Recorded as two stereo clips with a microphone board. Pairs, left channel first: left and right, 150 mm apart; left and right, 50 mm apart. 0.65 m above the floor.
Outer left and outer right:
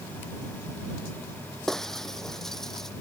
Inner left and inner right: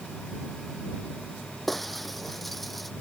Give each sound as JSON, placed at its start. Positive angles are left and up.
{"t": 1.7, "sound": "breaking glass", "side_deg": 5}